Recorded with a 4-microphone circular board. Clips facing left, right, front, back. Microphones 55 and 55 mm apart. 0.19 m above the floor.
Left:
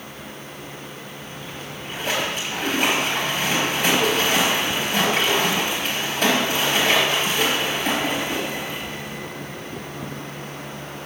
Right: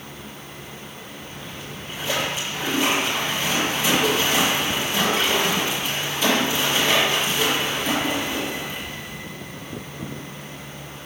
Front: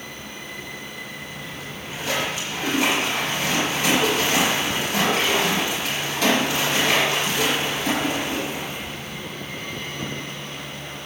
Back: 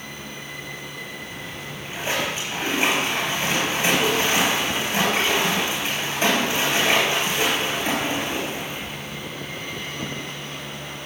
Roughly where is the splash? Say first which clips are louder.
Left 1 dB, even; behind left.